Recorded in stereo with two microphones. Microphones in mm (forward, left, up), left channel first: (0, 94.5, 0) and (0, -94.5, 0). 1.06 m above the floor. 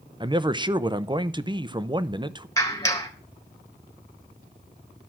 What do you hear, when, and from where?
0.2 s a man speaking: 25° right (ahead or behind), 0.7 m
2.6 s a clap: 15° left (ahead or behind), 3.5 m